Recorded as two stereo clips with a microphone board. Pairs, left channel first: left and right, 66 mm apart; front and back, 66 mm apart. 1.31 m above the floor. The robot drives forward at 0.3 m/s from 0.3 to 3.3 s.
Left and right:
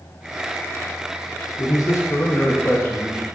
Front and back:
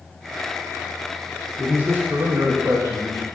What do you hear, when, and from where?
1.6 s a man speaking: 115° left, 0.5 m; by 3.2 s 145° left, 0.9 m